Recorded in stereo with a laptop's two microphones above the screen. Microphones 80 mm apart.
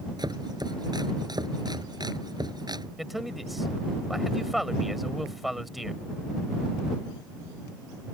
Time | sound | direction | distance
0.2 | chopping | 60° right (ahead or behind) | ?
3.0 | a man speaking | centre (ahead or behind) | ?